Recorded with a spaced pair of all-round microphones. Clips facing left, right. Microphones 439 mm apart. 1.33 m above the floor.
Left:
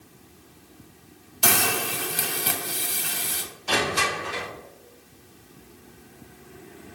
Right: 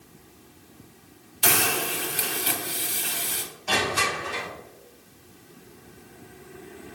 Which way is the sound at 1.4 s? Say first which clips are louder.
Even; 60° left (ahead or behind).